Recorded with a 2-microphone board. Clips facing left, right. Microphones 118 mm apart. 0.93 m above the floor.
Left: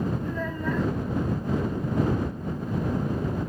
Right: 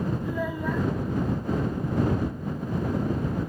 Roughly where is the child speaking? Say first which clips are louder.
Right 1 dB; centre.